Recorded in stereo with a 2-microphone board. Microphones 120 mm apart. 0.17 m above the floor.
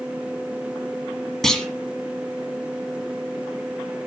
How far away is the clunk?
About 1.3 m.